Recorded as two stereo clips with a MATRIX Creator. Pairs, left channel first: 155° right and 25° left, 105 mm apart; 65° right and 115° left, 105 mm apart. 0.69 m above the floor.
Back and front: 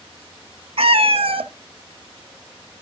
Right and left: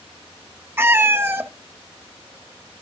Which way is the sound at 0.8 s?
45° left.